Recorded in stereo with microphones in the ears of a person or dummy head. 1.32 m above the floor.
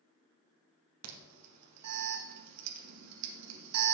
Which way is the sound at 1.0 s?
85° right.